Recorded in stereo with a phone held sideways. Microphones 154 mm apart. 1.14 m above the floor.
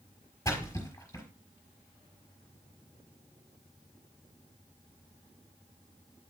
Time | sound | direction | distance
0.5 | a splash | 20° left (ahead or behind) | 4.5 m